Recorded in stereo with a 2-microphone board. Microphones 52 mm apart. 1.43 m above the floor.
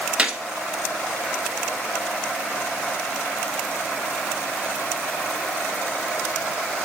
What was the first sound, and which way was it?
A gunshot, 20° right (ahead or behind).